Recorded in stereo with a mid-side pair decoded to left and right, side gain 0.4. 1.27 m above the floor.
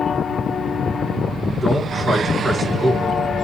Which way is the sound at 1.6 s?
5° right.